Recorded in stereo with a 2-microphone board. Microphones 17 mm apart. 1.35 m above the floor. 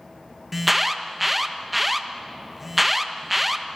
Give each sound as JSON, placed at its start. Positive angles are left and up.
{"t": 0.5, "sound": "an alarm", "side_deg": -5, "distance_m": 1.3}